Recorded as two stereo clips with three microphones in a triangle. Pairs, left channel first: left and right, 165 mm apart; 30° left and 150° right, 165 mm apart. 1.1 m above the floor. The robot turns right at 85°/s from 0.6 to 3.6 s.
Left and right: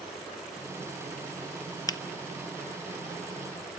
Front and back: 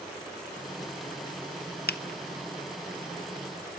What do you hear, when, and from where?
1.9 s a finger snap: 25° left, 0.6 m; by 2.0 s 35° left, 0.6 m